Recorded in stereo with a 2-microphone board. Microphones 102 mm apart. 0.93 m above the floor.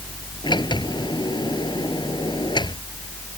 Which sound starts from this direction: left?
A sliding door, at 0.4 s.